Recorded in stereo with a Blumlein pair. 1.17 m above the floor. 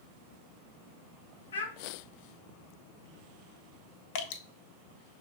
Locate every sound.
1.5 s a child speaking: 65° left, 0.8 m
4.2 s dripping: 50° left, 0.5 m